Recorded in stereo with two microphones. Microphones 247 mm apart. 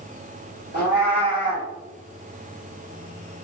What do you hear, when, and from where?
0.7 s a cat meowing: 40° left (ahead or behind), 1.2 m